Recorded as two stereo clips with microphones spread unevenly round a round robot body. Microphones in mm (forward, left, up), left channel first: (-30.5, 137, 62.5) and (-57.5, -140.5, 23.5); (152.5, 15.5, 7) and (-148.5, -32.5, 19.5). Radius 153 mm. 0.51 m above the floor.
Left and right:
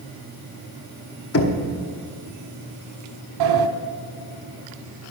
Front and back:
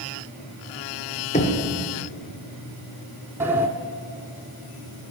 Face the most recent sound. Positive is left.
turn(degrees=-90)